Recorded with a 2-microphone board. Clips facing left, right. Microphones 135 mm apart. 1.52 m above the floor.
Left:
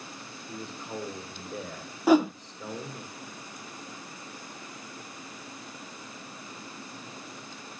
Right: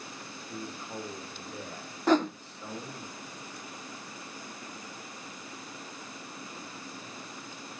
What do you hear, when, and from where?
0.5 s a man speaking: 85° left, 7 m
2.1 s a whoosh: 10° left (ahead or behind), 0.6 m